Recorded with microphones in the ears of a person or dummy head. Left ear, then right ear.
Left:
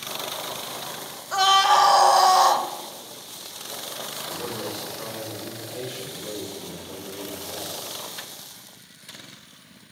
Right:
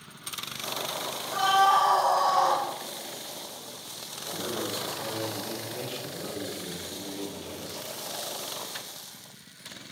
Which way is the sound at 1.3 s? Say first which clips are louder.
Left 4 dB; 45° left (ahead or behind).